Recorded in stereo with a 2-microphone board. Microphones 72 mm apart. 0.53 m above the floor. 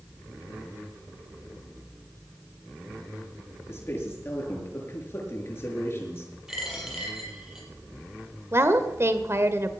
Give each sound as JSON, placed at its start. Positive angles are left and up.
{"t": 3.7, "sound": "a man speaking", "side_deg": 35, "distance_m": 7.0}
{"t": 6.5, "sound": "a dropped coin", "side_deg": -5, "distance_m": 6.0}
{"t": 8.5, "sound": "a woman speaking", "side_deg": -40, "distance_m": 1.7}